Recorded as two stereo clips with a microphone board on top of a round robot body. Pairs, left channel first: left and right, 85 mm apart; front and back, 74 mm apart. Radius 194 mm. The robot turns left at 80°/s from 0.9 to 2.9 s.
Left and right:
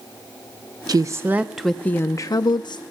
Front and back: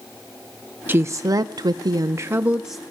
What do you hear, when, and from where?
0.9 s a woman speaking: 120° right, 0.6 m; by 2.8 s 85° left, 0.6 m